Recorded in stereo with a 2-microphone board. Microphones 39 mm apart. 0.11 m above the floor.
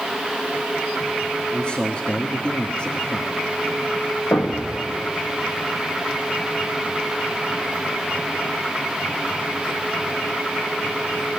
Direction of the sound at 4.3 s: 50° left (ahead or behind).